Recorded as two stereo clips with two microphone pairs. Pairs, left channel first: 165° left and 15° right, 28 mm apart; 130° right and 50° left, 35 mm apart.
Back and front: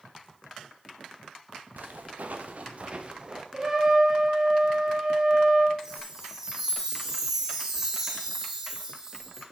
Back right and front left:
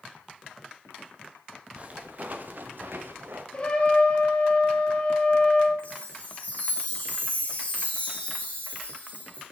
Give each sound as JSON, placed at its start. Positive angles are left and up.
{"t": 1.8, "sound": "footsteps", "azimuth_deg": -5, "distance_m": 1.7}
{"t": 3.5, "sound": "a trumpet", "azimuth_deg": -80, "distance_m": 1.5}
{"t": 5.8, "sound": "a chime", "azimuth_deg": -85, "distance_m": 3.0}